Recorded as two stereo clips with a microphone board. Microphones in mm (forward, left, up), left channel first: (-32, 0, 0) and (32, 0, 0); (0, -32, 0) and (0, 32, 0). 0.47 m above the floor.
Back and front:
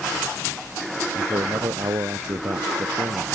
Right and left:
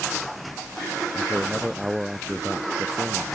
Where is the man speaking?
5° left; by 3.4 s 10° left.